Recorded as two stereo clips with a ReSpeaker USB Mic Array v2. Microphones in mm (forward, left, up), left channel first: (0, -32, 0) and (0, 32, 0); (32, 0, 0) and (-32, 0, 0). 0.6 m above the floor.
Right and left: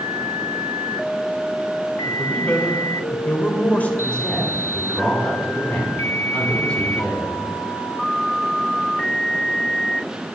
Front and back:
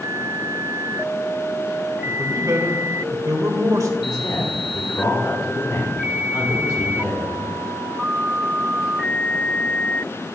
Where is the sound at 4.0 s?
20° right, 5.5 m.